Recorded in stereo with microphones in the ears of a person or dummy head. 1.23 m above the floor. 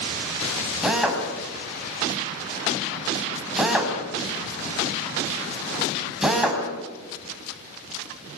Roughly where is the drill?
Centre.